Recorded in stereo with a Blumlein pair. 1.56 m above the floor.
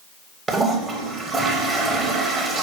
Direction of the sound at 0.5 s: 15° right.